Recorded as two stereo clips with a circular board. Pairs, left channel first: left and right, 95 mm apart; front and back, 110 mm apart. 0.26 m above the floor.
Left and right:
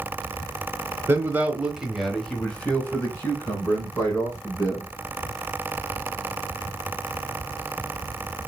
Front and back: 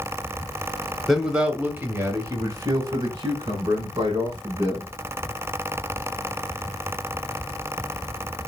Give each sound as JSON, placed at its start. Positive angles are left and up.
{"t": 1.1, "sound": "a man speaking", "azimuth_deg": -95, "distance_m": 1.0}